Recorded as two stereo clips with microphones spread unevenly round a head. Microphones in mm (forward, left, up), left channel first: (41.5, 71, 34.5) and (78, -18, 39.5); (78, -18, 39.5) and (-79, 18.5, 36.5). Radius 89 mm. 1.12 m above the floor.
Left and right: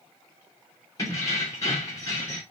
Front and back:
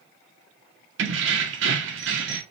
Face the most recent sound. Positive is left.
turn(degrees=-175)